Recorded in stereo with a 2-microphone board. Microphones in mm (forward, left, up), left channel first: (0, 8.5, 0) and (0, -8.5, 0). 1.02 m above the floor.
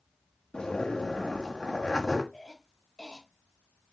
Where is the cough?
45° left (ahead or behind), 2.5 m.